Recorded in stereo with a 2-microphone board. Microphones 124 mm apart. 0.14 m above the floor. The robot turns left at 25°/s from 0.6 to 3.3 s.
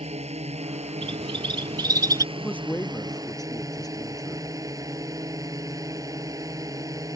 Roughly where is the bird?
Right.